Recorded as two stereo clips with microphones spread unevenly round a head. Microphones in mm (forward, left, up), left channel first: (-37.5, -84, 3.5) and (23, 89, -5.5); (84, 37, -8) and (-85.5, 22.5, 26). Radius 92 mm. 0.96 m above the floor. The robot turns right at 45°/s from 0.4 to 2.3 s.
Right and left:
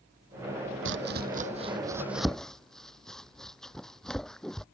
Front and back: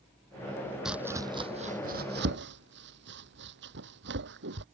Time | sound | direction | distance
0.8 | chopping | 100° left | ?